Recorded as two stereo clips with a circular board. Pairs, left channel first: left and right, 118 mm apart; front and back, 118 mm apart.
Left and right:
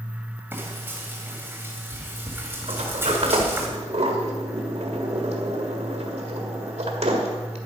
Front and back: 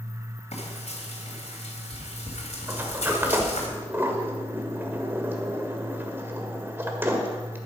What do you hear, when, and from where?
0.5 s frying: 20° right, 2.5 m
2.7 s a sliding door: 110° right, 1.7 m